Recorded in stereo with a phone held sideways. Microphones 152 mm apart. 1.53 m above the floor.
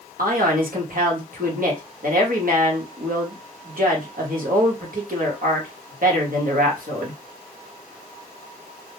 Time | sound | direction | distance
0.2 | a man speaking | 70° right (ahead or behind) | 0.9 m